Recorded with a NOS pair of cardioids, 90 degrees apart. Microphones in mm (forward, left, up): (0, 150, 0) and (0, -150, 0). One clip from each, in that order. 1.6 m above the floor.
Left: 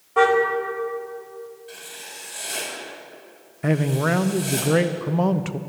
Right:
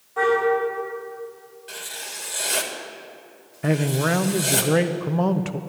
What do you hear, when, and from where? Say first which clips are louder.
0.2 s a car horn: left 3 dB; 65° left, 4.5 m
1.7 s writing: right 4 dB; 60° right, 3 m
3.6 s a man speaking: even; straight ahead, 0.8 m